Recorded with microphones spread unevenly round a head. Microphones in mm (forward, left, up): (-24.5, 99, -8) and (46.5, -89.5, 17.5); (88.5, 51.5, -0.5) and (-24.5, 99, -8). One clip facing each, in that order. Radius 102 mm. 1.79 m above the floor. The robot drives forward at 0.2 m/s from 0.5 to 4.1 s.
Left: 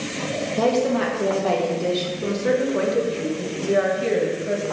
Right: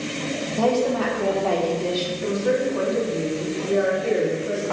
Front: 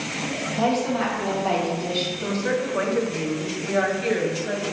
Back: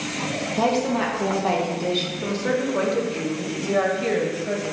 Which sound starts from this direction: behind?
A woman speaking, at 0.6 s.